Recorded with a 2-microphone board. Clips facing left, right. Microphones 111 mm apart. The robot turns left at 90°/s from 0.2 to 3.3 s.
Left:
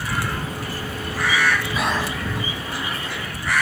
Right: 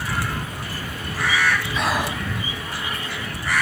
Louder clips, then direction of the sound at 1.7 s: Even; 10° left.